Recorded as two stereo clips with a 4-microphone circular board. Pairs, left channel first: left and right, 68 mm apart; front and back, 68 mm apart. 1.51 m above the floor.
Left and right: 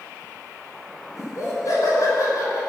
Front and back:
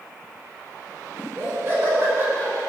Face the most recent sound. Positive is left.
turn(degrees=125)